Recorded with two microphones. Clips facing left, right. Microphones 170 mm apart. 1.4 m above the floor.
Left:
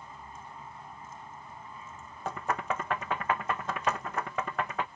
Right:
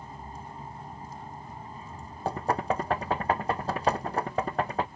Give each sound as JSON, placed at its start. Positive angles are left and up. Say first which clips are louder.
{"t": 0.0, "sound": "a vehicle", "louder": "right 4 dB", "side_deg": -35}
{"t": 2.2, "sound": "knocking", "louder": "right 5 dB", "side_deg": -30}